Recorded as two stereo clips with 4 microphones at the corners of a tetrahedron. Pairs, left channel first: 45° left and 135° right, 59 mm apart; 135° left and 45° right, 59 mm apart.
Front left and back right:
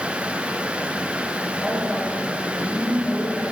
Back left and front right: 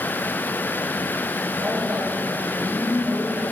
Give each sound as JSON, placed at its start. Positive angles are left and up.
{"t": 1.6, "sound": "a woman speaking", "azimuth_deg": -25, "distance_m": 3.0}